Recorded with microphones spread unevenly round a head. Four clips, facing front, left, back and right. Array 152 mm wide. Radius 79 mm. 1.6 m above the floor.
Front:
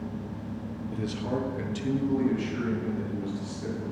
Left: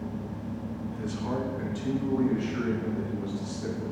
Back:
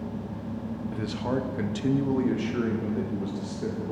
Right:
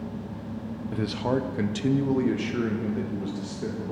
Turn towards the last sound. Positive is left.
turn(degrees=-125)